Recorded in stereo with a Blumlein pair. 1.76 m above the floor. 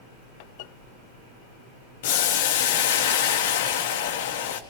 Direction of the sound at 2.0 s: 55° left.